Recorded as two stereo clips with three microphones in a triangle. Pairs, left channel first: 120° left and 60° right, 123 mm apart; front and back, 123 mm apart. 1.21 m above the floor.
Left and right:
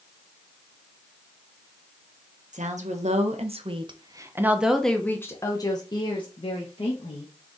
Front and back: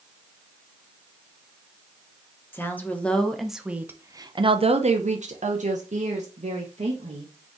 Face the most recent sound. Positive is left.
turn(degrees=155)